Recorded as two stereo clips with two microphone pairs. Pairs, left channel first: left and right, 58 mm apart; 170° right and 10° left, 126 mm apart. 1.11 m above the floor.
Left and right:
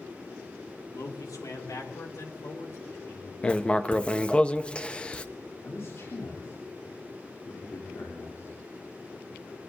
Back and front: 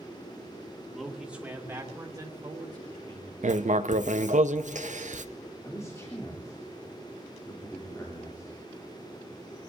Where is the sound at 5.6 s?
125° left, 3.5 m.